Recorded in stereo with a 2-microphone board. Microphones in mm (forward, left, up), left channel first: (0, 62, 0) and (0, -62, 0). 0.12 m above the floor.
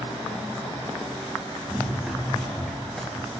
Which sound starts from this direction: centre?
Running footsteps, at 1.7 s.